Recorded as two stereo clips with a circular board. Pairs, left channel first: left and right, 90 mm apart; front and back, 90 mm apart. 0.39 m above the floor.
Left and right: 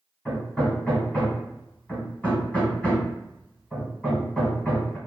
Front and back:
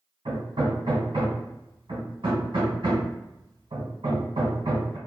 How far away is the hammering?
About 1.4 m.